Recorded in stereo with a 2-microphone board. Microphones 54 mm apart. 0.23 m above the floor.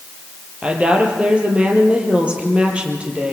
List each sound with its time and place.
0.6 s a woman speaking: 20° right (ahead or behind), 5 m